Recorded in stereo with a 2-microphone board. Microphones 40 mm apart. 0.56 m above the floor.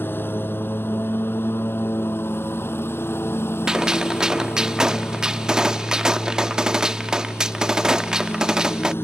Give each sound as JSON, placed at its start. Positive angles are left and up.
{"t": 0.0, "sound": "a lawn mower", "side_deg": 65}
{"t": 3.7, "sound": "a gunshot", "side_deg": -20}